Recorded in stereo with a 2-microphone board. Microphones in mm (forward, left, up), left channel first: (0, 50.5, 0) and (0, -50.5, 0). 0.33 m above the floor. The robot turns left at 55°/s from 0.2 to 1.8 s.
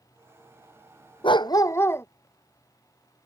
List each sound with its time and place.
1.2 s a dog barking: 55° left; by 2.1 s 25° left